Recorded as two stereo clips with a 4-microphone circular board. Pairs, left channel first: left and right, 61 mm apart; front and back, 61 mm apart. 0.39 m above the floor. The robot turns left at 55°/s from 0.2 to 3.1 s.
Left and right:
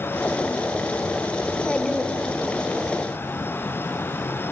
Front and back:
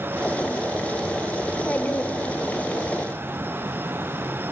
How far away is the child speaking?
About 0.5 m.